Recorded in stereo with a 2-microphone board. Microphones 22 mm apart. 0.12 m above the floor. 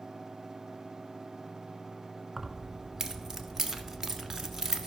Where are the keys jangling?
20° right (ahead or behind), 0.8 m.